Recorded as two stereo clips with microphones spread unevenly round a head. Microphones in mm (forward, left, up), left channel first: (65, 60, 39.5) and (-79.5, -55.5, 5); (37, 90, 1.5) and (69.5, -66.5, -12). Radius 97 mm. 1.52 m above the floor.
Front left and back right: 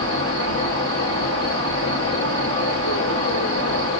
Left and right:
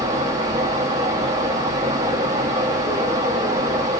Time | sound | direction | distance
0.0 | a fan | 10° right | 1.9 m